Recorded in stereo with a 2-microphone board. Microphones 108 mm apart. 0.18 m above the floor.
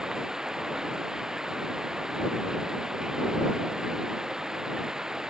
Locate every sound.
0.0 s running water: 5° right (ahead or behind)